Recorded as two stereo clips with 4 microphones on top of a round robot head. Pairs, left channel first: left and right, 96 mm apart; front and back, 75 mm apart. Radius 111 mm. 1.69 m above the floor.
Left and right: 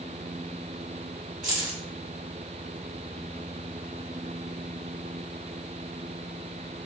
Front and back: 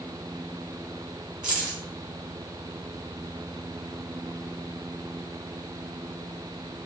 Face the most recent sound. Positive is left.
turn(degrees=-145)